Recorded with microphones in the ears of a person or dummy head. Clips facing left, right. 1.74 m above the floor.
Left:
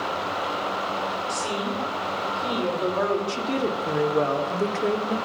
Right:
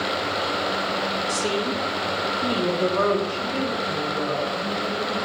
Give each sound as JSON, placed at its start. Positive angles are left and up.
{"t": 1.3, "sound": "a woman speaking", "side_deg": -60, "distance_m": 5.0}
{"t": 3.3, "sound": "a woman speaking", "side_deg": 60, "distance_m": 2.0}